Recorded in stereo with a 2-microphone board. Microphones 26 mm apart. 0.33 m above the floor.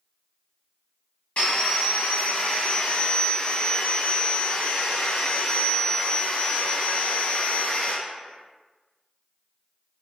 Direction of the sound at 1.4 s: 50° left (ahead or behind).